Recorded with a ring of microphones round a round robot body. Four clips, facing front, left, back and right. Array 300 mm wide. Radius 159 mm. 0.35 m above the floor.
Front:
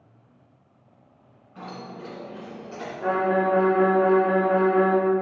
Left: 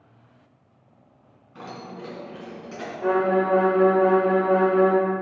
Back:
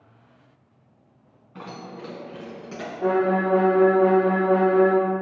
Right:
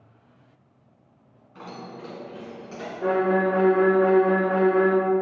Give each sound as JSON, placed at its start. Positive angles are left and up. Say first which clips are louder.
{"t": 1.6, "sound": "keys jangling", "louder": "left 1 dB, even", "azimuth_deg": 170, "distance_m": 3.0}
{"t": 3.0, "sound": "a violin", "louder": "left 1 dB, back 1 dB", "azimuth_deg": -160, "distance_m": 3.0}